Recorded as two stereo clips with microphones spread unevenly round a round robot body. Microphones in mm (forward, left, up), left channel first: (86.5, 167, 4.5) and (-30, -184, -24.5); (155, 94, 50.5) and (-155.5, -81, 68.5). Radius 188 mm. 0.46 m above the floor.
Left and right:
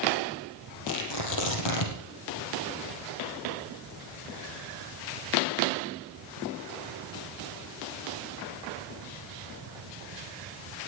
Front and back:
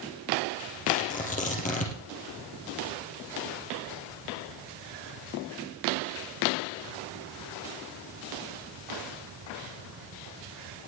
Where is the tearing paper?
100° left, 3.5 m.